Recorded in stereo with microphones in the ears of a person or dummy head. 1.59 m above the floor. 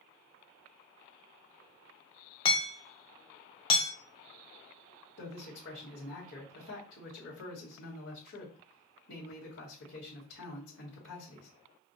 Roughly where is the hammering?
Left.